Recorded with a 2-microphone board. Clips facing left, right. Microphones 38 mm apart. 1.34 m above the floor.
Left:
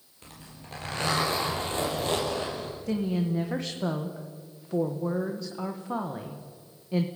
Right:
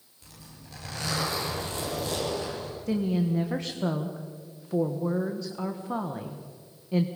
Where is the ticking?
No ticking in this recording.